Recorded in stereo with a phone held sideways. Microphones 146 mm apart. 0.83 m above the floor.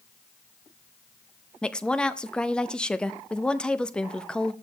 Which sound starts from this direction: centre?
A woman speaking, at 1.6 s.